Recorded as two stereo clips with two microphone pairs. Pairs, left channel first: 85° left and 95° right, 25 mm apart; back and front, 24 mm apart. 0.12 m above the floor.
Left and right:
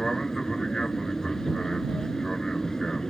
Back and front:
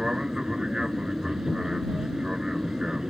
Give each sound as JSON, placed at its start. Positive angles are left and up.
{"t": 0.0, "sound": "an aircraft", "azimuth_deg": 40}